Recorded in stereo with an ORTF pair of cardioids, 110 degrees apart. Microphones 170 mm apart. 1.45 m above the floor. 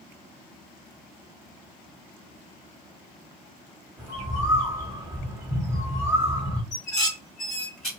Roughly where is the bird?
Ahead.